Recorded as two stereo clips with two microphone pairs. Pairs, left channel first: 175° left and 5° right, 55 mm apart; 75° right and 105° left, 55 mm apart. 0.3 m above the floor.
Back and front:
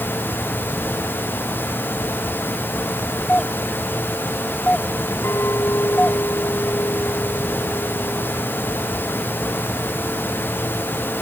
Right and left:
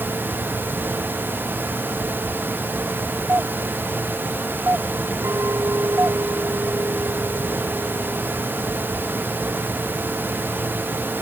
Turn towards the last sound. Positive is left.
turn(degrees=135)